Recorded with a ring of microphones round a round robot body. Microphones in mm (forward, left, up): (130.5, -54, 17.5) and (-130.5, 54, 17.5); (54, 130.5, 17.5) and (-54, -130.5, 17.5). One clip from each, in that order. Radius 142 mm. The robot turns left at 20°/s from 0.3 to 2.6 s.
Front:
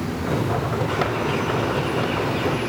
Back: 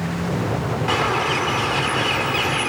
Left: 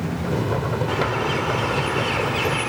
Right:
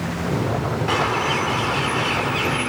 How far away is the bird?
About 2 m.